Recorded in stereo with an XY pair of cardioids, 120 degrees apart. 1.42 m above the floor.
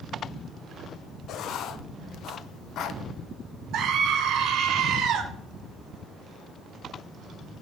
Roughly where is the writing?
Ahead left.